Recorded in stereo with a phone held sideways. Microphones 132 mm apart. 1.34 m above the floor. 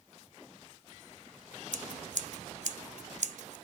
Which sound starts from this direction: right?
Scissors, at 1.7 s.